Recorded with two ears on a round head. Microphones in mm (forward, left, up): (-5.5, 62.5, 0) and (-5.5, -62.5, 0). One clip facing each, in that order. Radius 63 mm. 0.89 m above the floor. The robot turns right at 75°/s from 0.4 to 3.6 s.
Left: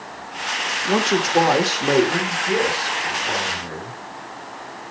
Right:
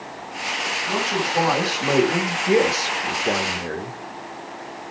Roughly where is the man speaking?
Left.